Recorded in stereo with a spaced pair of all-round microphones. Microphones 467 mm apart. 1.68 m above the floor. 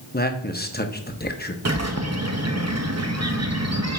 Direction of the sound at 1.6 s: 35° right (ahead or behind).